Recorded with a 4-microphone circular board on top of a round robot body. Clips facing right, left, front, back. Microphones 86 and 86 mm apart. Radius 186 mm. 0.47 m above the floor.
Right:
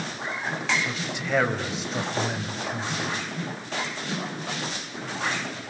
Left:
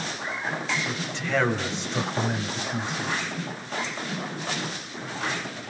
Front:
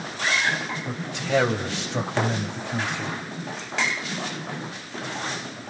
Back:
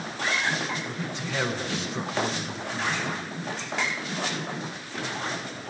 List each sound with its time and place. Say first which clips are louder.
0.9 s a man speaking: right 1 dB, front 5 dB; 15° right, 4.5 m; by 3.2 s 5° left, 5.5 m